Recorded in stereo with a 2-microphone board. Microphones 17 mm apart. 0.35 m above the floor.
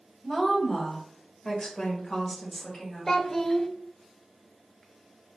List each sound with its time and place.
0.2 s a woman speaking: 15° left (ahead or behind), 1.5 m; by 3.1 s 30° left (ahead or behind), 1.6 m
3.1 s a child speaking: 25° left (ahead or behind), 0.5 m